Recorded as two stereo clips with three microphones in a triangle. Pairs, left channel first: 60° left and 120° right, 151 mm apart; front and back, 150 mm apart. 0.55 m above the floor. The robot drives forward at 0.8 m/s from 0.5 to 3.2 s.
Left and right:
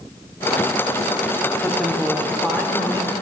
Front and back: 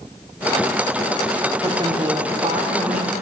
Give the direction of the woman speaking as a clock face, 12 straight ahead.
8 o'clock.